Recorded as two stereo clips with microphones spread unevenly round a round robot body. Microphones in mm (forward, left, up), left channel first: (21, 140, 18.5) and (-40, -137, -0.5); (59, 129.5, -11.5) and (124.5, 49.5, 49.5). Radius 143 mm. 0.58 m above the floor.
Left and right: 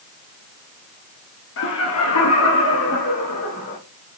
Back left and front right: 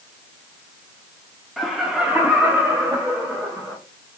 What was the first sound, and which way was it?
Laughter, 85° left.